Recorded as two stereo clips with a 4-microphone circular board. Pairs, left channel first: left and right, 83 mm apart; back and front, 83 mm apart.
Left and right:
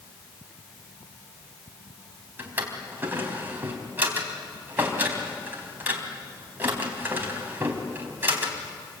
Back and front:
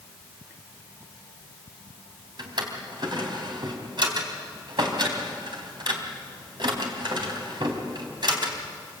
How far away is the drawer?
About 3.5 m.